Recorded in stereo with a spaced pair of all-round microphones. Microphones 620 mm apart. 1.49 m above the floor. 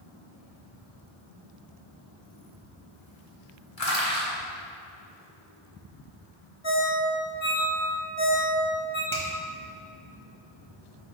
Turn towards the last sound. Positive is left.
turn(degrees=5)  # may be behind; listen again after turning